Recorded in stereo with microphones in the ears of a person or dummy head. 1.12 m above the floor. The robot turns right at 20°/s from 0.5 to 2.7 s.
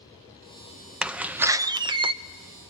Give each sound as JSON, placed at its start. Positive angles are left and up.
{"t": 1.0, "sound": "a door slam", "side_deg": -5, "distance_m": 0.6}